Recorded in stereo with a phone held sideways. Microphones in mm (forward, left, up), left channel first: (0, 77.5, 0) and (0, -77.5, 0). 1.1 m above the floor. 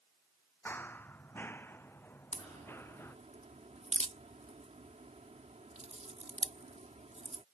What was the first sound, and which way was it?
Running footsteps, 10° left (ahead or behind).